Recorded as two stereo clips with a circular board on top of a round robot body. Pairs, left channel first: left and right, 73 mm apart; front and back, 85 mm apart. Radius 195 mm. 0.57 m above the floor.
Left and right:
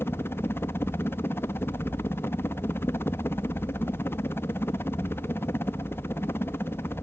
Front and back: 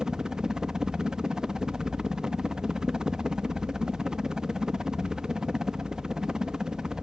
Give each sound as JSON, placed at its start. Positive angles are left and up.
{"t": 0.0, "sound": "a helicopter", "azimuth_deg": 105}